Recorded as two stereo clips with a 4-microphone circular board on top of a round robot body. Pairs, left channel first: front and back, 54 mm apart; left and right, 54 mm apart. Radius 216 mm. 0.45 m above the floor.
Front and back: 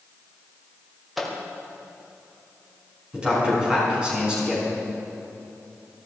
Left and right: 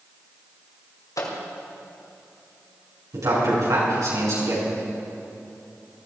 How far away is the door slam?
I don't hear a door slam.